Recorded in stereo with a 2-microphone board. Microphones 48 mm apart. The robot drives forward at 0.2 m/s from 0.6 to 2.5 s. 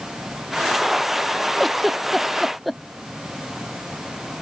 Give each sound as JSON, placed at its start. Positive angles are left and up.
{"t": 1.6, "sound": "a giggle", "side_deg": 0}